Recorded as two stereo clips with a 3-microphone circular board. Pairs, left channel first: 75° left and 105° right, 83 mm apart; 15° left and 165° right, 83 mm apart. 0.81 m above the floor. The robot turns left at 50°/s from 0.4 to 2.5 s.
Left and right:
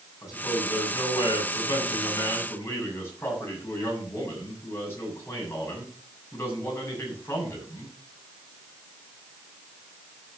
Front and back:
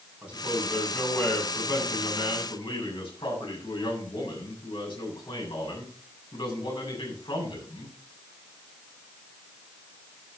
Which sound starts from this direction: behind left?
A man speaking, at 0.2 s.